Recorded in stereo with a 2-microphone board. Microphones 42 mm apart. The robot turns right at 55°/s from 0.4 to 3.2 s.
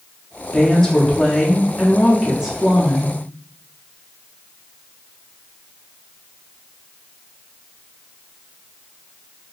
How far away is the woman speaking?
About 0.8 m.